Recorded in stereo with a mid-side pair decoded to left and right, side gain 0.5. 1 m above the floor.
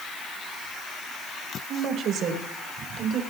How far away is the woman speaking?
About 4 m.